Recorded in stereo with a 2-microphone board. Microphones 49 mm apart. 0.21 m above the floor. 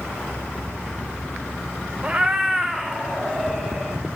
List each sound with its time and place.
2.0 s a cat meowing: 25° right (ahead or behind), 0.6 m; by 4.0 s centre (ahead or behind), 3 m